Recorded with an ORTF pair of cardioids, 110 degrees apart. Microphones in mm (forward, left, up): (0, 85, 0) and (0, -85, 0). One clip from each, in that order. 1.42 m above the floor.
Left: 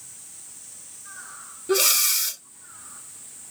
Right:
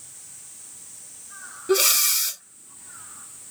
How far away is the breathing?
About 0.8 m.